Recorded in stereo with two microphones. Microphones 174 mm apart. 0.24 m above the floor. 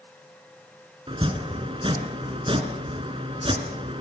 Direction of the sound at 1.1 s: 30° right (ahead or behind).